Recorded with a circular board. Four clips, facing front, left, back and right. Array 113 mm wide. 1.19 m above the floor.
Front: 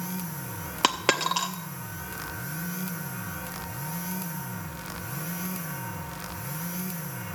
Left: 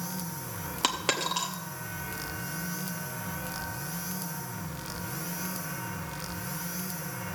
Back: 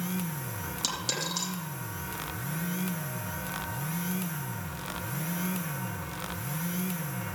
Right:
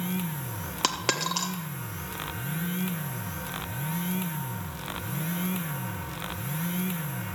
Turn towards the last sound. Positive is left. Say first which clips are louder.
# right 1 dB, front 13 dB
turn(degrees=-5)